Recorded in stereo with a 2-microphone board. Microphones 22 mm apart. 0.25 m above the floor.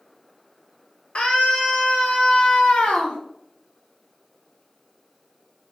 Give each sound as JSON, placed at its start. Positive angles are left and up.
{"t": 1.1, "sound": "a scream", "side_deg": 60, "distance_m": 5.5}